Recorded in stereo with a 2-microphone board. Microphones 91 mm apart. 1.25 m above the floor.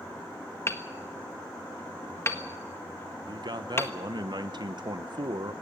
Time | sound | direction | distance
0.7 | hammering | 30° left (ahead or behind) | 1.4 m
3.3 | a man speaking | 55° right (ahead or behind) | 1.1 m